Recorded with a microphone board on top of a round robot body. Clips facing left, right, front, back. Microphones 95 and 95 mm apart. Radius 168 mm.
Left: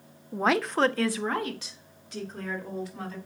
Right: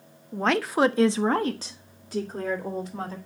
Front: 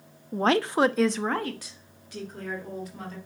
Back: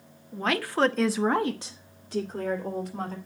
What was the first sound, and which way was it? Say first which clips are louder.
A woman speaking: right 1 dB, front 4 dB; 15° left.